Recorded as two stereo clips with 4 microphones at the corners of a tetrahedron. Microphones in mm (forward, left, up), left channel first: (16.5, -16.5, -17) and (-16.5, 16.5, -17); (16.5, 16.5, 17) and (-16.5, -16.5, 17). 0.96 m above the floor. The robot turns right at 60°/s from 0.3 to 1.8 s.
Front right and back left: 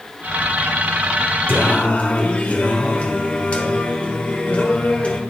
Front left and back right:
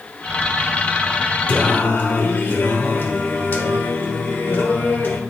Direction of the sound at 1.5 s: 5° right.